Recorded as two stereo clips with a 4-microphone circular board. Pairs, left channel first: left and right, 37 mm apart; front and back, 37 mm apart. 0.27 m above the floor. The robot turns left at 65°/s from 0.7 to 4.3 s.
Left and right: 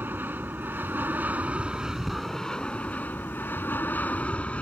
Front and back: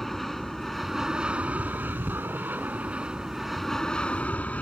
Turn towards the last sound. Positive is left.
turn(degrees=45)